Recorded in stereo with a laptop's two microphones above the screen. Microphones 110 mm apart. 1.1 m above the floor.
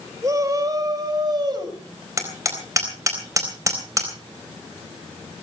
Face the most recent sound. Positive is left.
turn(degrees=-30)  # may be behind; listen again after turning